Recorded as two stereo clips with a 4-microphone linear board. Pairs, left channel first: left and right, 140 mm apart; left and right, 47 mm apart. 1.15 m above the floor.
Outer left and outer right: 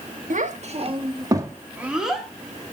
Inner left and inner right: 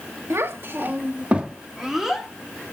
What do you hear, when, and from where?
0.3 s a child speaking: 65° right (ahead or behind), 1.6 m; by 2.3 s centre (ahead or behind), 2 m